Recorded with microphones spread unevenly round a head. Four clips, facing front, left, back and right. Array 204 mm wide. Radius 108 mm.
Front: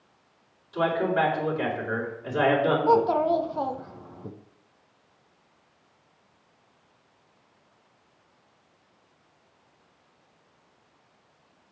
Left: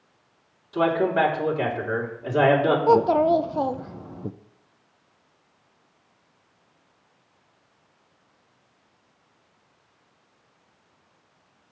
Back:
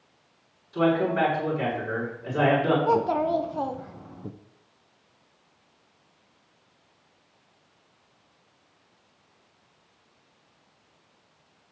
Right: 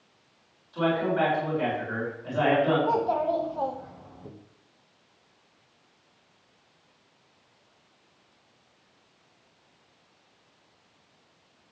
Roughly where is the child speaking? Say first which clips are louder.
Left 7 dB, front 2 dB; left.